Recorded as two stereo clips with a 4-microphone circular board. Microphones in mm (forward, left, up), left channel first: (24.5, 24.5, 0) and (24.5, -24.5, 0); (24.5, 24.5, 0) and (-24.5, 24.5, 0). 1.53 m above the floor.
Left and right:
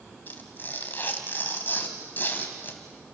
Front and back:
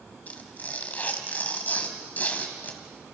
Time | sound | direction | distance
0.3 | tearing paper | 50° left | 2.5 m